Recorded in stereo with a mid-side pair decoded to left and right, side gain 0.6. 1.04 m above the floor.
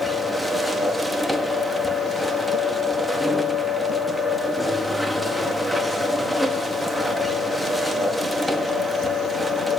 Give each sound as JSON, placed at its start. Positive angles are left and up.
{"t": 0.0, "sound": "a machine running", "azimuth_deg": 0, "distance_m": 1.4}